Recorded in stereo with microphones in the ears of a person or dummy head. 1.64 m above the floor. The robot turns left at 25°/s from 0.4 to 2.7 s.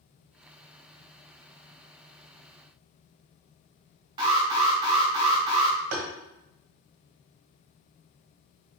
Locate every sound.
4.2 s an alarm: 25° right (ahead or behind), 0.6 m
5.9 s tapping: 55° right (ahead or behind), 0.8 m